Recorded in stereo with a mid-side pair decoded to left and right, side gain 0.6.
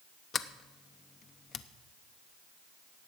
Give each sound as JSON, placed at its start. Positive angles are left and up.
{"t": 0.3, "sound": "a sliding door", "azimuth_deg": 35, "distance_m": 0.8}